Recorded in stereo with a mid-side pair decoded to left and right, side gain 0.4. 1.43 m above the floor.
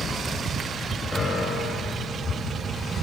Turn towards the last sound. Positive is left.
turn(degrees=20)